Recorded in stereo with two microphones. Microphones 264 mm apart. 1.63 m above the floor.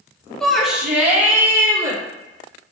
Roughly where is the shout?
Centre.